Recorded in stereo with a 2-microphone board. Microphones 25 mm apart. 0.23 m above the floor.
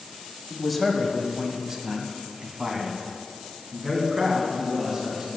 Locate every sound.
0.5 s a man speaking: 5° left (ahead or behind), 1.0 m; by 5.4 s 25° right (ahead or behind), 3 m